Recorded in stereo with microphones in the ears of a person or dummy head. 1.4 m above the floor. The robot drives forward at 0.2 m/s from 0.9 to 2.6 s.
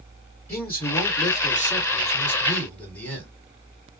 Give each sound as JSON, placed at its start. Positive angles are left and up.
{"t": 0.5, "sound": "a man speaking", "side_deg": 15, "distance_m": 1.6}